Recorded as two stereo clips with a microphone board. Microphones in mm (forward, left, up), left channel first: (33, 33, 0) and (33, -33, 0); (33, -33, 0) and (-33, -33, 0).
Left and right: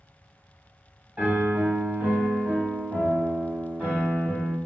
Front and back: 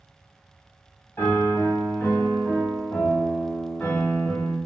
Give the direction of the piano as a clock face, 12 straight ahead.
1 o'clock.